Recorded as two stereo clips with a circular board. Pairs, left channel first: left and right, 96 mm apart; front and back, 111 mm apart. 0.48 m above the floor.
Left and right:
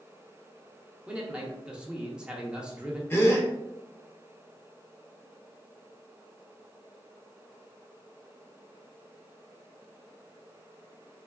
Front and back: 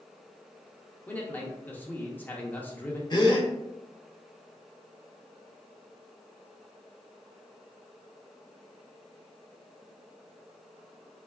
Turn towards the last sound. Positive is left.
turn(degrees=30)